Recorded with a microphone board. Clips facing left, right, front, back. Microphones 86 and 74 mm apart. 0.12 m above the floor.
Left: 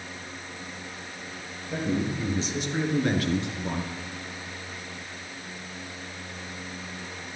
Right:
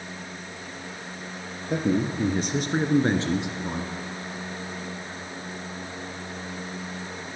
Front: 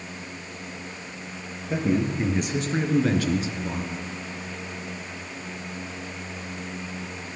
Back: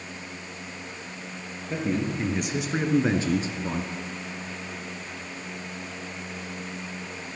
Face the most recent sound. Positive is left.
turn(degrees=180)